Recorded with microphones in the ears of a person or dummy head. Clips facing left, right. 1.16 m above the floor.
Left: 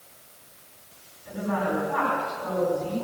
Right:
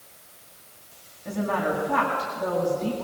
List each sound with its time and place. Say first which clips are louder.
1.2 s a woman speaking: right 1 dB; 55° right (ahead or behind), 7.5 m